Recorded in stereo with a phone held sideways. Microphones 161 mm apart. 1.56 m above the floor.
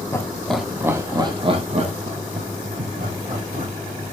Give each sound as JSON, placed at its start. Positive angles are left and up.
{"t": 0.1, "sound": "laughter", "side_deg": 20, "distance_m": 0.7}